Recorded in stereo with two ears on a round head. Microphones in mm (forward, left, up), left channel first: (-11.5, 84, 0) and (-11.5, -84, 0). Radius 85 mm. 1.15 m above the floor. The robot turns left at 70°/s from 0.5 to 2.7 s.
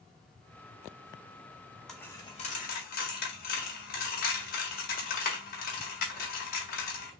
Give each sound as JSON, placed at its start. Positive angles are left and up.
{"t": 1.9, "sound": "a dropped coin", "side_deg": 0, "distance_m": 1.6}